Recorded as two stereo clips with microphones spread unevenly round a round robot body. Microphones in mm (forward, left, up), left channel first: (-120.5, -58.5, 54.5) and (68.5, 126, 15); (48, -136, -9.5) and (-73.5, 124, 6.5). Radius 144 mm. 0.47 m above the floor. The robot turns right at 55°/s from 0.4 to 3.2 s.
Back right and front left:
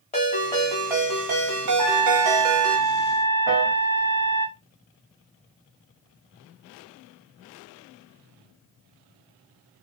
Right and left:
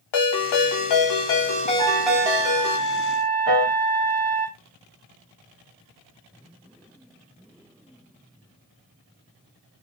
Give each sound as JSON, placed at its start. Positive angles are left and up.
{"t": 0.1, "sound": "a ringtone", "azimuth_deg": -65, "distance_m": 1.1}
{"t": 1.8, "sound": "a trumpet", "azimuth_deg": 25, "distance_m": 2.0}
{"t": 3.5, "sound": "a piano", "azimuth_deg": 120, "distance_m": 1.7}